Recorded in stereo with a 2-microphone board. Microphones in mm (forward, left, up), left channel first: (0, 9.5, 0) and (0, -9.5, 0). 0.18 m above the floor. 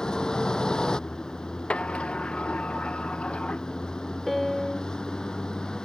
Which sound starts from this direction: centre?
A piano, at 4.3 s.